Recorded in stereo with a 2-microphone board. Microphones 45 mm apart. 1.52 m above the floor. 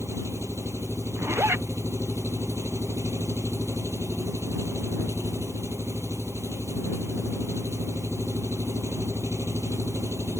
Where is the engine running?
85° right.